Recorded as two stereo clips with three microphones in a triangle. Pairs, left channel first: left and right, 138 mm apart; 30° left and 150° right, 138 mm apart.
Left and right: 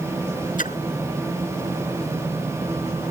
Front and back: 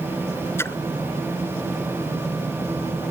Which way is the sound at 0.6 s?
100° left.